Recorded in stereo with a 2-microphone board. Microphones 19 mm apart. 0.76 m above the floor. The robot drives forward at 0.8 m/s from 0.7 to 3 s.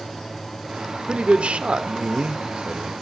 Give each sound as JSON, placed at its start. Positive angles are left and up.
{"t": 1.1, "sound": "a man speaking", "side_deg": -65, "distance_m": 1.9}